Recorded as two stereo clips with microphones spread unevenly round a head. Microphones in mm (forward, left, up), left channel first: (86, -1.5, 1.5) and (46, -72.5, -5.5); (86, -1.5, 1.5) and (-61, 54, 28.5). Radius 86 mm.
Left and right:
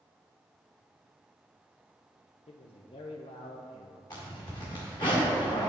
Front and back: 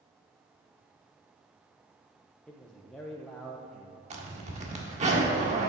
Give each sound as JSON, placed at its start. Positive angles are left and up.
{"t": 2.5, "sound": "a man speaking", "azimuth_deg": 65, "distance_m": 0.9}
{"t": 4.1, "sound": "a zipper", "azimuth_deg": 115, "distance_m": 1.7}